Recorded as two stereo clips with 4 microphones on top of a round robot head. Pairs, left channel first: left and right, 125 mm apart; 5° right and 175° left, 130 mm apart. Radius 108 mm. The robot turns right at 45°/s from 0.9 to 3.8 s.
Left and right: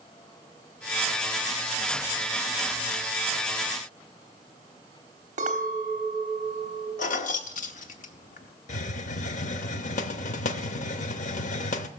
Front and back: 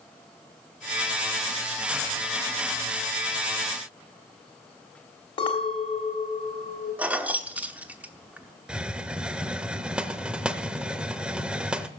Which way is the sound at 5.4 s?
60° right.